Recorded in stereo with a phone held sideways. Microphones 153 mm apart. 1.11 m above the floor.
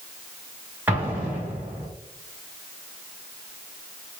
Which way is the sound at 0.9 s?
10° right (ahead or behind).